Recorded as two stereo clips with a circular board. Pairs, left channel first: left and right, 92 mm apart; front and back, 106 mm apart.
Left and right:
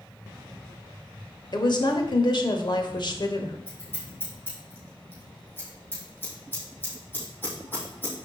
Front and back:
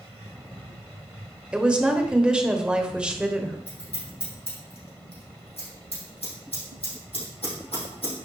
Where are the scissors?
20° left, 4.5 m.